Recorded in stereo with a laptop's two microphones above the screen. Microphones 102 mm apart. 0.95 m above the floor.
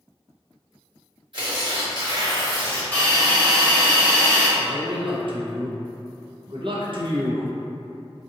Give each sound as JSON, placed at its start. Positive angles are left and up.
{"t": 1.3, "sound": "tearing paper", "side_deg": -55, "distance_m": 1.5}
{"t": 2.9, "sound": "a hiss", "side_deg": 20, "distance_m": 1.1}
{"t": 4.6, "sound": "a man speaking", "side_deg": -55, "distance_m": 0.6}